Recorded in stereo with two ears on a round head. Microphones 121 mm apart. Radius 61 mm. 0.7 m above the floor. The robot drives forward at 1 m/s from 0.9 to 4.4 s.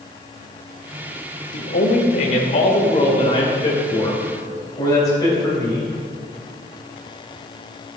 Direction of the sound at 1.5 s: 70° left (ahead or behind).